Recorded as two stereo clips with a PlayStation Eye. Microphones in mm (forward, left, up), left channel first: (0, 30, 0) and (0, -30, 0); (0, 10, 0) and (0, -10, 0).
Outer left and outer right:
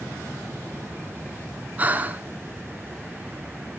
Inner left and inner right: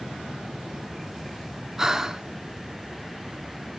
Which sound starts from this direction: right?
Breathing, at 1.8 s.